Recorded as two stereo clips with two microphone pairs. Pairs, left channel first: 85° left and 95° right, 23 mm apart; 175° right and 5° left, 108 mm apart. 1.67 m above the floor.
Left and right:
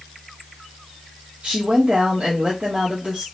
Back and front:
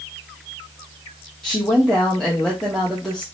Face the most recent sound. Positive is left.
turn(degrees=-90)